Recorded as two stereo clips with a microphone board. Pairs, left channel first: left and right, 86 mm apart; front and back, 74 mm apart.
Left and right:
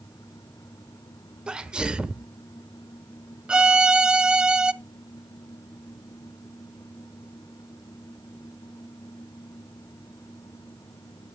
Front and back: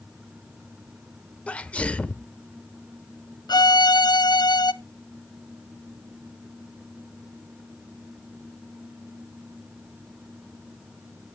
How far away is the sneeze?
About 0.9 m.